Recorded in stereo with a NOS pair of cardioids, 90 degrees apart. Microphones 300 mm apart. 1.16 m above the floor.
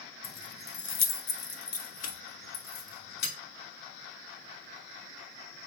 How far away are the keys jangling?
About 0.6 m.